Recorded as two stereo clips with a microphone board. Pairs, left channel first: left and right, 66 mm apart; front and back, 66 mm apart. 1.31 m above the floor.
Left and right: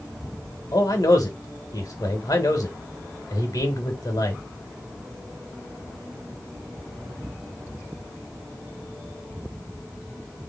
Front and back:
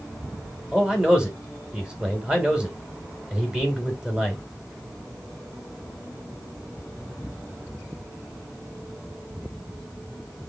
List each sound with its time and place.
0.7 s a man speaking: 105° left, 1.8 m